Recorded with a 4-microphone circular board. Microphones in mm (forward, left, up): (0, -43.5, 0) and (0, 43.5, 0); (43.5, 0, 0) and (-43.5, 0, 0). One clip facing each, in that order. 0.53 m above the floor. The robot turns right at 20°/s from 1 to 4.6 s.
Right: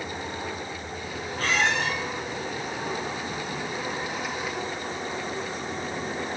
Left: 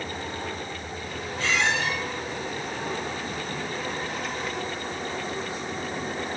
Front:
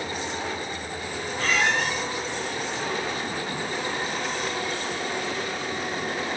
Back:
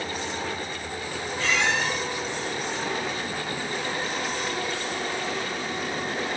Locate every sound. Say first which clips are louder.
1.4 s a squeak: even, front 1 dB; 50° right, 3 m; by 1.9 s 40° right, 3 m